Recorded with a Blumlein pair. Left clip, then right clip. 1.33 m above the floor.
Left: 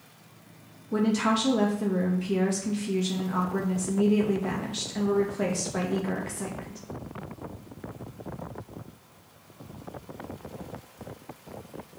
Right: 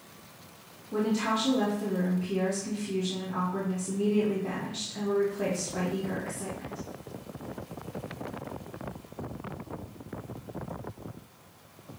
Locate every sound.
0.9 s a woman speaking: 20° left, 2 m